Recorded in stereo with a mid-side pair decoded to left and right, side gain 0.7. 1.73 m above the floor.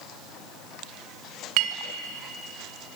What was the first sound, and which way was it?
A clink, 70° right.